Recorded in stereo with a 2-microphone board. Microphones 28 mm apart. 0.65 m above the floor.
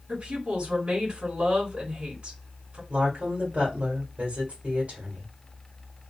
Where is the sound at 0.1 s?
45° right (ahead or behind), 1.6 m.